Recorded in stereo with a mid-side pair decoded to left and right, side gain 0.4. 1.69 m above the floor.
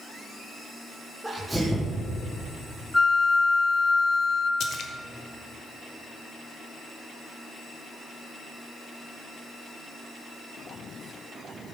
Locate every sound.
1.2 s a sneeze: 10° right, 1.7 m
2.9 s a flute: 15° left, 1.1 m
4.6 s a splash: 65° left, 1.2 m